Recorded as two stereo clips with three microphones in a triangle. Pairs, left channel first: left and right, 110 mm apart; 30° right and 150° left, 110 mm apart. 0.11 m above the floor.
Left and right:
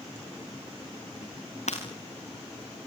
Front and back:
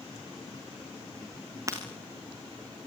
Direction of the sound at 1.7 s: 90° left.